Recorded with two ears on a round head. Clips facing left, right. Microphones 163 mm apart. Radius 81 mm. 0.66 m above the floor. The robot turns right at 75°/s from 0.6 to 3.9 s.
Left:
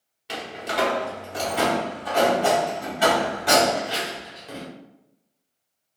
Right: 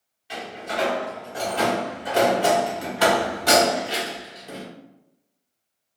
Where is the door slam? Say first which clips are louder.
Left 1 dB; 70° left (ahead or behind), 0.9 m; by 4.7 s 20° right (ahead or behind), 0.9 m.